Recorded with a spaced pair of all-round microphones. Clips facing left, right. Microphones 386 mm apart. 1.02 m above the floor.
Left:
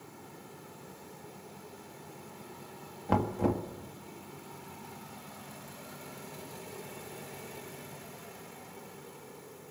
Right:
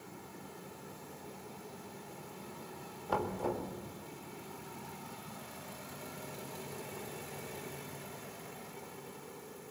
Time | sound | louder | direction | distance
3.1 | knocking | left 6 dB | 75° left (ahead or behind) | 1.8 m